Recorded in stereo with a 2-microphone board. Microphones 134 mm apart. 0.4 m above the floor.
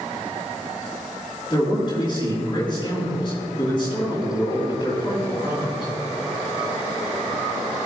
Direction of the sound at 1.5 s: 35° left (ahead or behind).